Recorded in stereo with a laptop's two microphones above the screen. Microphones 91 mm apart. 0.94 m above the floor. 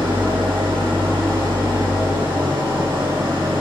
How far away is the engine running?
About 1.7 m.